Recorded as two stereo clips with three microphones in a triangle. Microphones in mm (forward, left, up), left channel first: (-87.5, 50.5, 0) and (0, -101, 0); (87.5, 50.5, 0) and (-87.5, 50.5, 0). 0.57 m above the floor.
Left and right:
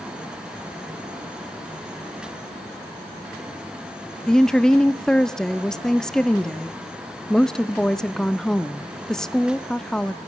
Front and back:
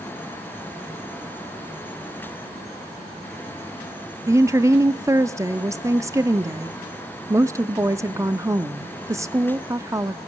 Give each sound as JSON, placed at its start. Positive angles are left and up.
{"t": 4.3, "sound": "a woman speaking", "azimuth_deg": -160, "distance_m": 0.6}